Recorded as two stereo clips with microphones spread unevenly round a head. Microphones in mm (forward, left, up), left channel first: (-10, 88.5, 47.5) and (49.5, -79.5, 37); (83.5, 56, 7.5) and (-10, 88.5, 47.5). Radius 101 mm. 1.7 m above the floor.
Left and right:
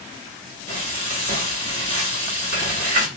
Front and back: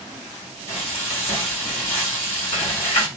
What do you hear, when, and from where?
0.7 s frying: 40° right, 1.5 m